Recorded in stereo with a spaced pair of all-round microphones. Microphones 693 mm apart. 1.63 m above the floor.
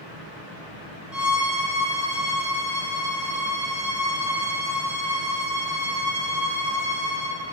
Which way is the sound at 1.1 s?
25° right (ahead or behind).